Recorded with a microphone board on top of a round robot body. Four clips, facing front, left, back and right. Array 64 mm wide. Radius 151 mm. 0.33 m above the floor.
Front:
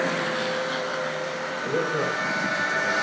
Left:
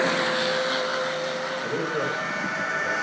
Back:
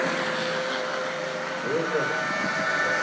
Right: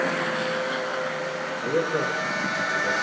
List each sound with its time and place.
1.6 s a man speaking: 80° right, 6.5 m; by 2.9 s 85° right, 6.5 m